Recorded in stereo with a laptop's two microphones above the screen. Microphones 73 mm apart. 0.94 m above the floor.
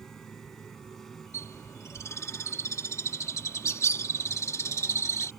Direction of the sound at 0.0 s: 5° left (ahead or behind).